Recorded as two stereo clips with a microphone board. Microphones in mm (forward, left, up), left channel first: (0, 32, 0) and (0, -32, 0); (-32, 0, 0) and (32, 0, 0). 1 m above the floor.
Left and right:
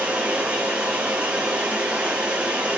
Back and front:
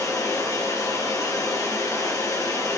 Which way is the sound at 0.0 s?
160° right.